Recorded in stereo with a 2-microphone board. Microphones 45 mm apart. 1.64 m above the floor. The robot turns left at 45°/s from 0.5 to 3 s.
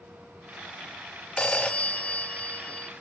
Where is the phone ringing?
20° left (ahead or behind), 0.7 m; by 2.9 s 25° left (ahead or behind), 0.7 m.